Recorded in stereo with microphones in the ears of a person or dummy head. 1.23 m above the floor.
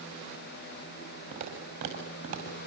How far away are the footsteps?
About 7 m.